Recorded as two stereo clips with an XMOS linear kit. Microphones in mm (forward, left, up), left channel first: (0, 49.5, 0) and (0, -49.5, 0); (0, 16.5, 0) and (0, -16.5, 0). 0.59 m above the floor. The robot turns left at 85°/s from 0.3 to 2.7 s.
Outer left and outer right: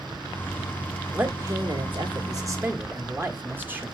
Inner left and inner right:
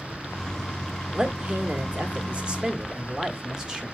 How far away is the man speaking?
About 1.4 m.